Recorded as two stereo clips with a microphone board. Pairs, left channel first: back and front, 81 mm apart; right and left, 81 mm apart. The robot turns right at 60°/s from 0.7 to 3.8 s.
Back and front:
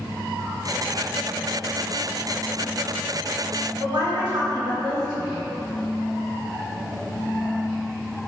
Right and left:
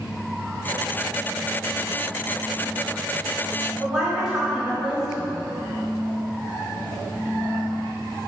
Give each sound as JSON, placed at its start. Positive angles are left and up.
{"t": 3.8, "sound": "a woman speaking", "azimuth_deg": 10, "distance_m": 1.4}